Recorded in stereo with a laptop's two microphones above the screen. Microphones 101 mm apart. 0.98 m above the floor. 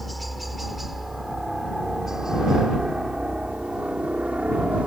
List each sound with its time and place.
0.0 s a helicopter: centre (ahead or behind); by 4.9 s 15° right (ahead or behind)